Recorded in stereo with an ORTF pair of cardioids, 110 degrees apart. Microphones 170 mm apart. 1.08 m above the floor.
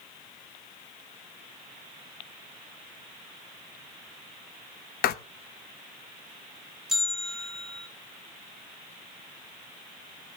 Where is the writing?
70° left, 0.8 m.